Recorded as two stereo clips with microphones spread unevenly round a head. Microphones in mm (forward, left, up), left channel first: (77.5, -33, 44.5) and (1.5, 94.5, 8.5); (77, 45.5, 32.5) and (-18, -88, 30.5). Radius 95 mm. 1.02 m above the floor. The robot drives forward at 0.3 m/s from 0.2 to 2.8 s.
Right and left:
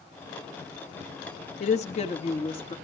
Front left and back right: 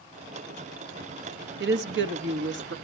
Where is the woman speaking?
115° right, 1.4 m; by 2.8 s 125° right, 1.5 m.